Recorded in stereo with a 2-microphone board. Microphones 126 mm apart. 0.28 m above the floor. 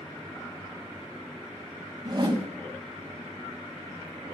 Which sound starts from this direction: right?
A whoosh, at 2.0 s.